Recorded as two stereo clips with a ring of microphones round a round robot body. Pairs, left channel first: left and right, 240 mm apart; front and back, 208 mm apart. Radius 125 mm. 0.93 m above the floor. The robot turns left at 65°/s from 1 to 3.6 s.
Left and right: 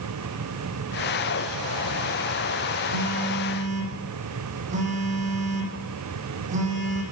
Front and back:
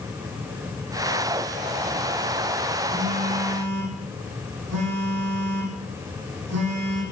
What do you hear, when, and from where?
2.9 s a phone buzzing: 105° right, 9 m; by 7.0 s 150° right, 9 m